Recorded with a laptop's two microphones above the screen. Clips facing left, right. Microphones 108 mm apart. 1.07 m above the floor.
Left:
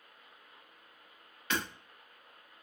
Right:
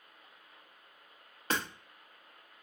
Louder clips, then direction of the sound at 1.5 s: Right 1 dB; 35° right (ahead or behind).